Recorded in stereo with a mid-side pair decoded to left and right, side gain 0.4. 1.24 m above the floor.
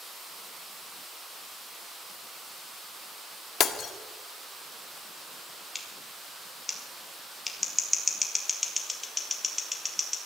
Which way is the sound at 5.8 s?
20° left.